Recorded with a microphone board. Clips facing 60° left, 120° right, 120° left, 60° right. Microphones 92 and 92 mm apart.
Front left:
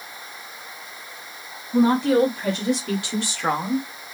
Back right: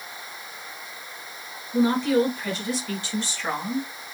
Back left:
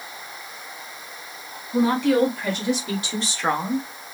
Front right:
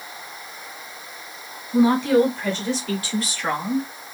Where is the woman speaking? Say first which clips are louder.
Front left 3 dB, front right 2 dB; 30° left, 2 m; by 3.9 s 80° left, 1.3 m.